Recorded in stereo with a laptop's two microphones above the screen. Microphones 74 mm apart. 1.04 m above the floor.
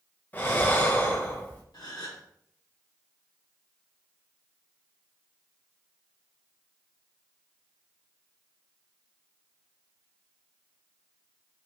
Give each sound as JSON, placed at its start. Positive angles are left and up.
{"t": 0.3, "sound": "breathing", "side_deg": 25, "distance_m": 0.5}
{"t": 1.7, "sound": "a gasp", "side_deg": 60, "distance_m": 1.0}